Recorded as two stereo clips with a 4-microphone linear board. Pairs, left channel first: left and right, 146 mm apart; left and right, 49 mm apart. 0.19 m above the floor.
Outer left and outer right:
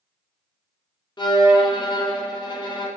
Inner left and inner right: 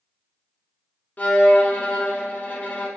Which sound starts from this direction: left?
A violin, at 1.2 s.